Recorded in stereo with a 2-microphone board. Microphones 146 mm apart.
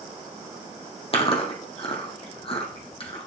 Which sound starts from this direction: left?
Chewing, at 1.1 s.